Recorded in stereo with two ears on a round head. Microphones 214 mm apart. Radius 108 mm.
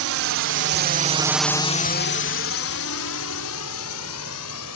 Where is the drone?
65° right (ahead or behind); by 4.8 s 75° left (ahead or behind).